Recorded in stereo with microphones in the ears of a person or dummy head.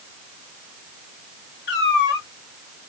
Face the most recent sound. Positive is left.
turn(degrees=55)  # may be behind; listen again after turning